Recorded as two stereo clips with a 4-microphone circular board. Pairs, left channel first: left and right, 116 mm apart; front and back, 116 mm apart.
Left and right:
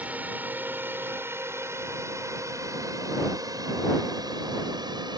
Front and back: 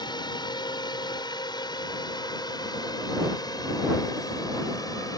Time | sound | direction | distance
0.0 | a drone | 20° right | ?